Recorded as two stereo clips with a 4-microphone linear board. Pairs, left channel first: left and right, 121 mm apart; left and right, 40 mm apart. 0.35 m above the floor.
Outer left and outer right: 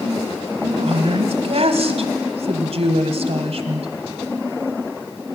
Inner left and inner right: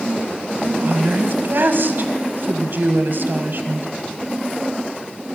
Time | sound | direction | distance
0.6 | a woman speaking | 60° right (ahead or behind) | 1.7 m